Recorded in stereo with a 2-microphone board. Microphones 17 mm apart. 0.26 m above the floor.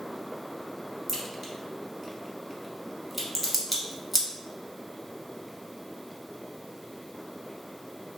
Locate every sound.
1.1 s a crack: 5° right (ahead or behind), 0.9 m